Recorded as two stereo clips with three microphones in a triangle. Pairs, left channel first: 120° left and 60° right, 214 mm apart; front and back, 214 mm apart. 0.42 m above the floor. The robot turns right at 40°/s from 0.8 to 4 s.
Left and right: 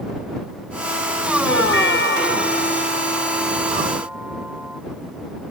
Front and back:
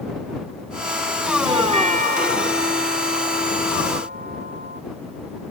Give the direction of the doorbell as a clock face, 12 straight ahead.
8 o'clock.